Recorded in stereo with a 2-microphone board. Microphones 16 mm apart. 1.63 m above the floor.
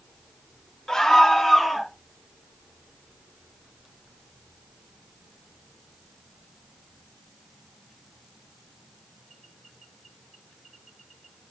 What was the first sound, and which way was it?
A scream, 25° left (ahead or behind).